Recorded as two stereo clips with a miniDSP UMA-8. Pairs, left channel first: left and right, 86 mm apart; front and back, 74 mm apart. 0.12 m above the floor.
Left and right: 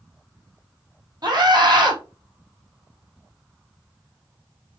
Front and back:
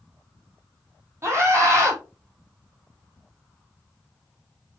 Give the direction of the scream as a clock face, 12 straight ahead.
4 o'clock.